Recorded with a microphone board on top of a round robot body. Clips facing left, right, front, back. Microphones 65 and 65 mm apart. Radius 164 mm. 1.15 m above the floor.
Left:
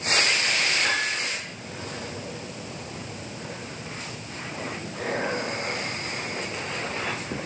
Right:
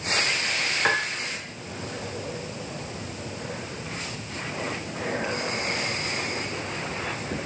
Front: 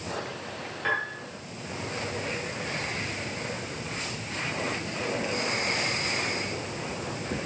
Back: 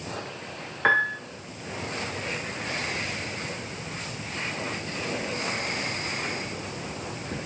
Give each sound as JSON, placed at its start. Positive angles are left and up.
{"t": 0.8, "sound": "a piano", "azimuth_deg": -145, "distance_m": 1.1}